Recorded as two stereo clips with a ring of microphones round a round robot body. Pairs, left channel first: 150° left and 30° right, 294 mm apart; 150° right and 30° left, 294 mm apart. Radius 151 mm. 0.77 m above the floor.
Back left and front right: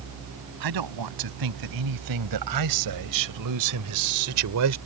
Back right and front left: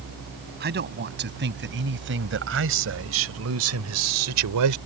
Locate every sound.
0.6 s a man speaking: 25° right; by 4.8 s 5° left